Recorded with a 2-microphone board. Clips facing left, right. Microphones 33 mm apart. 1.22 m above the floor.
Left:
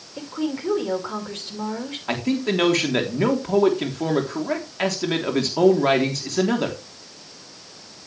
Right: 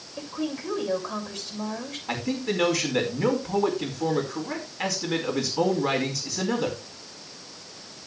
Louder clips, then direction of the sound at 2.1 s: Left 5 dB; 50° left (ahead or behind).